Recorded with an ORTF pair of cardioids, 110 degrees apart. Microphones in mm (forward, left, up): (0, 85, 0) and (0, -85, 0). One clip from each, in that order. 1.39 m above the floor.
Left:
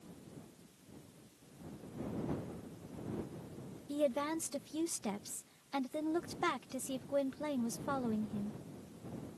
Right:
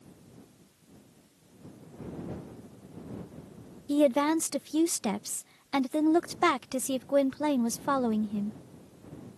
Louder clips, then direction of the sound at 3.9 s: Right 10 dB; 50° right.